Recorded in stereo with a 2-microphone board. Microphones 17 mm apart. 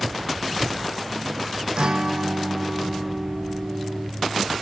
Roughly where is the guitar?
Right.